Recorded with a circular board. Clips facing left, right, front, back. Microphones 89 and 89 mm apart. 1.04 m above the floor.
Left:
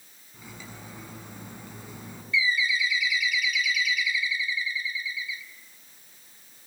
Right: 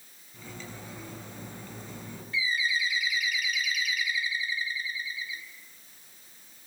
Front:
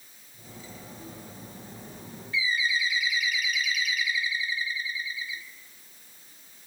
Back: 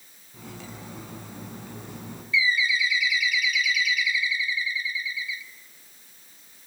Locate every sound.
0.3 s cutlery clinking: 170° left, 6.5 m
2.3 s a bird: 45° right, 1.1 m